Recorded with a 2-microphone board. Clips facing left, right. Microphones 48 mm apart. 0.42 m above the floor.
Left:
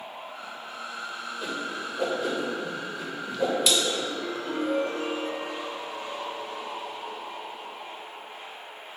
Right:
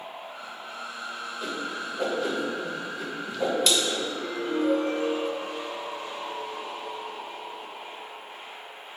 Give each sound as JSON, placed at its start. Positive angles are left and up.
{"t": 1.4, "sound": "a whoosh", "side_deg": 5, "distance_m": 1.0}
{"t": 4.1, "sound": "a ringtone", "side_deg": 45, "distance_m": 1.2}